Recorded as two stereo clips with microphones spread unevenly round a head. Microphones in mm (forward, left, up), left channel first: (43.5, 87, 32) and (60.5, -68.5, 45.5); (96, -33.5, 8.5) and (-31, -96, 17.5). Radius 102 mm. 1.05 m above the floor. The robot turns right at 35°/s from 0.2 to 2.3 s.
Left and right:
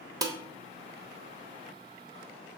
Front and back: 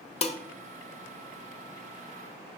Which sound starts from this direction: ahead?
Dishes clattering, at 0.2 s.